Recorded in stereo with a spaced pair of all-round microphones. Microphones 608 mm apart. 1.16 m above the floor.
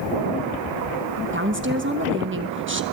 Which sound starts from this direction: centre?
A woman speaking, at 1.3 s.